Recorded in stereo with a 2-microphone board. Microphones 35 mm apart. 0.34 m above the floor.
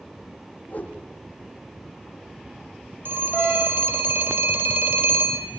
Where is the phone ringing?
70° right (ahead or behind), 5 m.